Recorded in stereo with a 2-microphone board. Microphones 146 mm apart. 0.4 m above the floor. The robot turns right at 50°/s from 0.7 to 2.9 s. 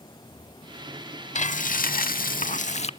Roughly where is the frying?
Ahead left.